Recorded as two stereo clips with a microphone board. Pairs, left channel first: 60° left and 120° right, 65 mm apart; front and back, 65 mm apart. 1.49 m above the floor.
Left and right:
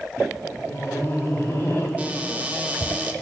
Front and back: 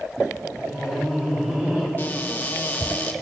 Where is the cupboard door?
55° right, 0.7 m.